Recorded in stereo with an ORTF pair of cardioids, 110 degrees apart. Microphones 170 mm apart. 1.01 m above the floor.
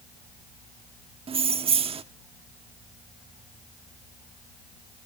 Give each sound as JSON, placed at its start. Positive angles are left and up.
{"t": 1.3, "sound": "keys jangling", "azimuth_deg": -35, "distance_m": 1.1}